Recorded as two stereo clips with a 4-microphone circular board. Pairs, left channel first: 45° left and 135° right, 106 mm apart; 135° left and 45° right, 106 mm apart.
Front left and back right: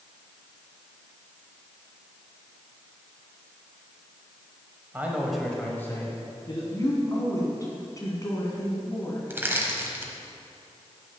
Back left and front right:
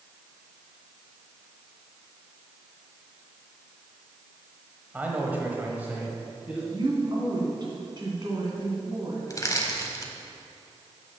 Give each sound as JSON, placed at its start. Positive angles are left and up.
{"t": 4.9, "sound": "a man speaking", "azimuth_deg": -95, "distance_m": 1.2}
{"t": 6.7, "sound": "a woman speaking", "azimuth_deg": -5, "distance_m": 2.5}
{"t": 9.3, "sound": "crushing", "azimuth_deg": 170, "distance_m": 1.2}